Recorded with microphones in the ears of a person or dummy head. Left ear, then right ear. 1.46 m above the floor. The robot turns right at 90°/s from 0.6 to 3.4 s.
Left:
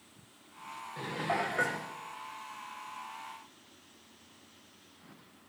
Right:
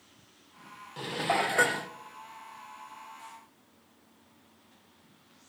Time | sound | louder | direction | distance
1.0 | dishes clattering | right 4 dB | 155° right | 0.5 m